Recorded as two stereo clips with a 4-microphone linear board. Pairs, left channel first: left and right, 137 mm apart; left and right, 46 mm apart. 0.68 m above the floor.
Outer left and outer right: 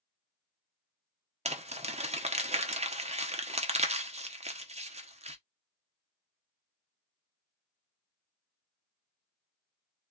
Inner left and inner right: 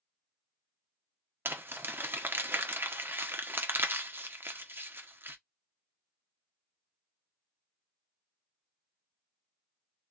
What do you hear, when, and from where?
1.4 s crumpling: 50° right (ahead or behind), 0.7 m